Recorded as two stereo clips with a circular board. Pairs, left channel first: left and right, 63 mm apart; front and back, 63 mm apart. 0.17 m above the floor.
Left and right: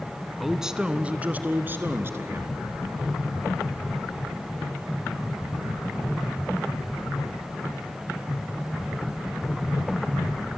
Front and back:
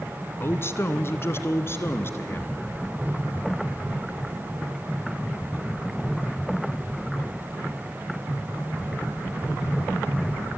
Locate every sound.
0.4 s a man speaking: 5° right, 1.2 m; by 2.5 s 50° right, 2 m